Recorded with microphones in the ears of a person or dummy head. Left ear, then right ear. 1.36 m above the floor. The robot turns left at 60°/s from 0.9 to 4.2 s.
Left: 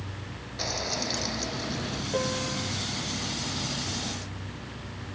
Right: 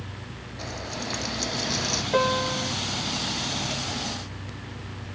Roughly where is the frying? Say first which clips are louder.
Left 4 dB; ahead.